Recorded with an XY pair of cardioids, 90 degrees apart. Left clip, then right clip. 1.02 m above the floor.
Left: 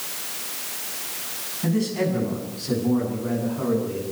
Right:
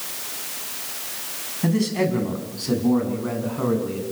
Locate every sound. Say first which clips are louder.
1.6 s a man speaking: right 2 dB; 40° right, 8 m